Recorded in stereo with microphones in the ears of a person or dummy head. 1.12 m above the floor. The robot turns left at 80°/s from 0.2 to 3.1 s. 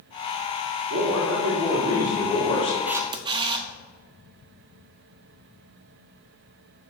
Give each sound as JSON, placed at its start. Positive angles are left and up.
{"t": 0.9, "sound": "a man speaking", "azimuth_deg": -75, "distance_m": 2.5}
{"t": 2.9, "sound": "a camera shutter", "side_deg": -5, "distance_m": 0.6}